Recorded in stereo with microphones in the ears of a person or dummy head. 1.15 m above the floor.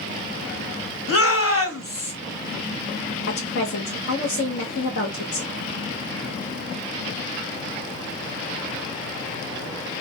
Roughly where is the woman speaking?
Left.